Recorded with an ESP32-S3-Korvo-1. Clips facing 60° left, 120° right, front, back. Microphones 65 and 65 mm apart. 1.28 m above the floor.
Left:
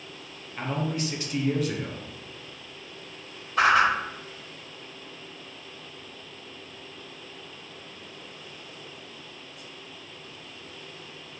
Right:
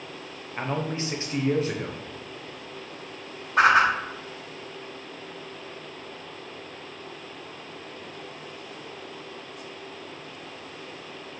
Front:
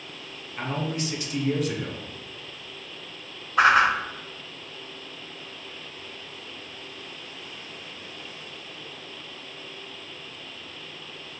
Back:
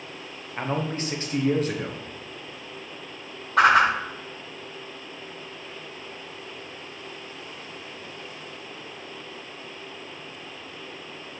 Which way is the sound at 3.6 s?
155° right.